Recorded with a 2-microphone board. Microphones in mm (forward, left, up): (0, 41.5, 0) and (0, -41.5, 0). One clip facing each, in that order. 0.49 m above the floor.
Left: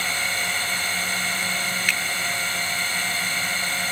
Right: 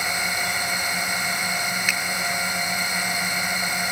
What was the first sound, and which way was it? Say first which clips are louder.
A drone: right 1 dB; 15° right (ahead or behind).